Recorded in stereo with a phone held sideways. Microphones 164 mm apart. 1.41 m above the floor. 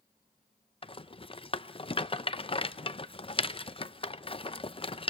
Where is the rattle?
35° left (ahead or behind), 0.6 m.